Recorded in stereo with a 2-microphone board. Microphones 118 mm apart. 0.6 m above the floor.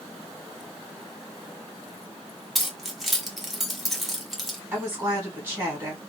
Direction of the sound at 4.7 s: 15° right (ahead or behind).